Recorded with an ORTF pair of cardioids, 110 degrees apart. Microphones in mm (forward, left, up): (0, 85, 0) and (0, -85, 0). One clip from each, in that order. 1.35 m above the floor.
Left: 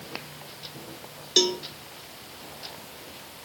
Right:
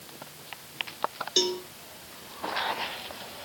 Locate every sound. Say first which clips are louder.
1.4 s a cowbell: left 4 dB; 20° left, 0.9 m